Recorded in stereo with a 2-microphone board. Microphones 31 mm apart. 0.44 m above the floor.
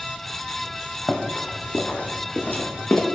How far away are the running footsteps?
About 1.0 m.